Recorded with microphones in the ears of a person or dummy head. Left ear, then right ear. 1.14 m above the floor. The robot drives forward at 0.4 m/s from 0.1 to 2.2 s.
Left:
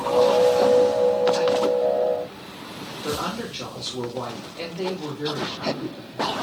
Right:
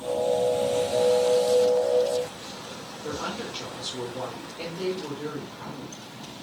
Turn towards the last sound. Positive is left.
turn(degrees=10)  # may be behind; listen again after turning